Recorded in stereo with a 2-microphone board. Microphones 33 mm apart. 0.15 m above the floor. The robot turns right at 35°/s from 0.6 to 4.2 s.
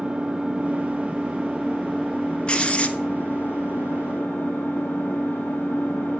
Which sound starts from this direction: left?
Writing, at 2.5 s.